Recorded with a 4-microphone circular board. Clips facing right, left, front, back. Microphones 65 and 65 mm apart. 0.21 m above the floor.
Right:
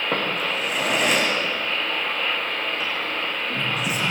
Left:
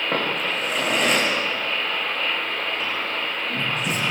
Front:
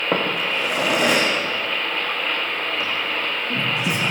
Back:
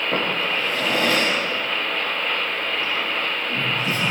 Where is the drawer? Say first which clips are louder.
Left 1 dB, front 2 dB; straight ahead, 7.5 m.